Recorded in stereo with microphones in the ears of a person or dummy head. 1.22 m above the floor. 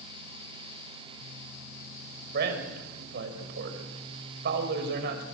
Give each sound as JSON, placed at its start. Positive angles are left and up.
{"t": 2.3, "sound": "a man speaking", "side_deg": -55, "distance_m": 5.0}